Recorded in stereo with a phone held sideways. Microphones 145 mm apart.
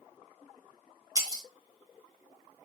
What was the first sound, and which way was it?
Breaking glass, 25° right (ahead or behind).